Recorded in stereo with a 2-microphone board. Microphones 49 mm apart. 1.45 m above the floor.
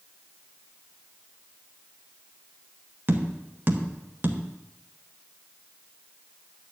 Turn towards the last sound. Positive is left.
turn(degrees=-50)  # may be behind; listen again after turning